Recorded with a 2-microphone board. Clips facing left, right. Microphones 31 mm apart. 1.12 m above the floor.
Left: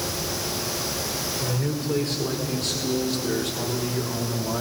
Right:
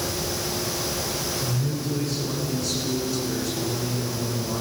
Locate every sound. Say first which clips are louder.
1.4 s a man speaking: left 1 dB; 85° left, 4.5 m; by 4.6 s 50° left (ahead or behind), 3 m